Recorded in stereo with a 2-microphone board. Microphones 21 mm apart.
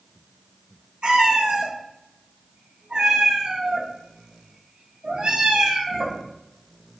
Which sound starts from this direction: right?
A cat meowing, at 1.0 s.